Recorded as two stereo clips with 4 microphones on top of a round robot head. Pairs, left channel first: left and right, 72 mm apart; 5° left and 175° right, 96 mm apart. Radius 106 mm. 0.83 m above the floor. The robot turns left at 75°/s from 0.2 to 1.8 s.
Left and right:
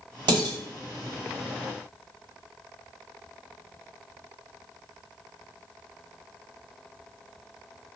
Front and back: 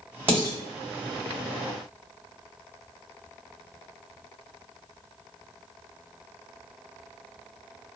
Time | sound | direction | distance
0.3 | dishes clattering | 105° right | 1.1 m